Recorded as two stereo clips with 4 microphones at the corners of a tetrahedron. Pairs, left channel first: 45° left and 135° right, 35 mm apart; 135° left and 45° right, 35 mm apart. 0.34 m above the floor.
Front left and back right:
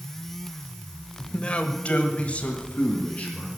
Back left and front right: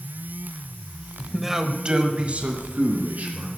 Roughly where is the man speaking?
Left.